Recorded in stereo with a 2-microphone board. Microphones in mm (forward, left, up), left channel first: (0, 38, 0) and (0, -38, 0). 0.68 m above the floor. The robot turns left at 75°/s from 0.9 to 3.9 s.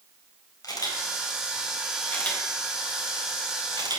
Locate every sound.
0.6 s a camera shutter: 55° left (ahead or behind), 4.5 m; by 4.0 s 70° right (ahead or behind), 4.5 m